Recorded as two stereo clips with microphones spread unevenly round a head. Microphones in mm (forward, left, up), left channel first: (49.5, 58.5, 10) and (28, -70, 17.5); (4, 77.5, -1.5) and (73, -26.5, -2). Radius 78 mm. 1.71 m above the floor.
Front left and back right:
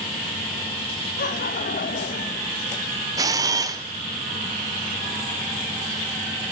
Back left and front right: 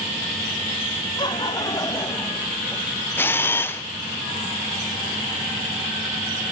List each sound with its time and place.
1.2 s laughter: 70° left, 2.5 m; by 2.5 s 45° left, 1.7 m
3.2 s a camera shutter: 165° right, 0.8 m